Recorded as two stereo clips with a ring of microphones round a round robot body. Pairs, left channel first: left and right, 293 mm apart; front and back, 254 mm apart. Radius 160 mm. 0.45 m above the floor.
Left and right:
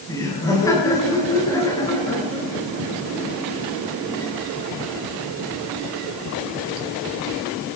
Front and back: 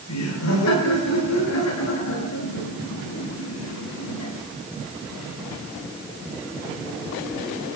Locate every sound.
0.1 s laughter: 10° left, 9 m